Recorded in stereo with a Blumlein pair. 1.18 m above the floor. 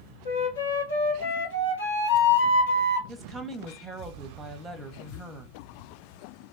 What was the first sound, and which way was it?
A flute, 60° left.